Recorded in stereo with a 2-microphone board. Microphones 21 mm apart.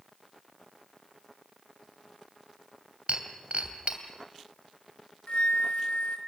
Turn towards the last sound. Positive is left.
turn(degrees=75)  # may be behind; listen again after turning